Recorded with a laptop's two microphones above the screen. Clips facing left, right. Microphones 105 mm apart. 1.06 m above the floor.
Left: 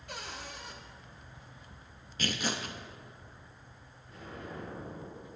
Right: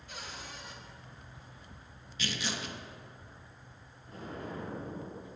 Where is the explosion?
50° right (ahead or behind), 2.5 m.